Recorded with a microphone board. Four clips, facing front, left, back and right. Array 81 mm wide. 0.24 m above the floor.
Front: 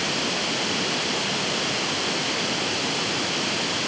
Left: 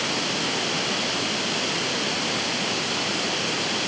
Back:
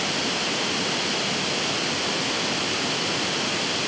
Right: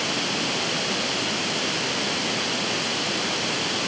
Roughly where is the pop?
No pop in this recording.